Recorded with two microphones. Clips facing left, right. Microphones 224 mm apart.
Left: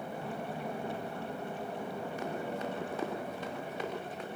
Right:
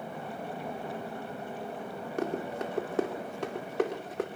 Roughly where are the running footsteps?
Right.